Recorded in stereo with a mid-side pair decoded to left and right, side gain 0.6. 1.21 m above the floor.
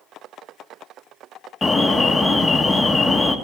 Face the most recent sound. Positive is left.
turn(degrees=15)